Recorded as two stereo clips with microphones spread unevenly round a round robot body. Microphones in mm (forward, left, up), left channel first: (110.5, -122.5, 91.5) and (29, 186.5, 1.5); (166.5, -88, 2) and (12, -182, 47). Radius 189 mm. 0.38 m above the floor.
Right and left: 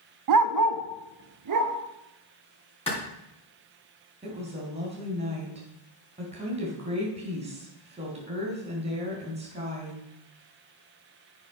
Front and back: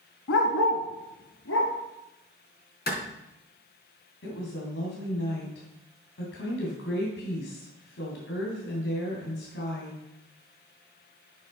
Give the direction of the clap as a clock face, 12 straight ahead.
12 o'clock.